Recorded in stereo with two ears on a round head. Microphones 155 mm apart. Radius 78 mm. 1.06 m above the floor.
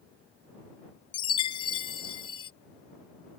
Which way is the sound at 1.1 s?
30° left (ahead or behind).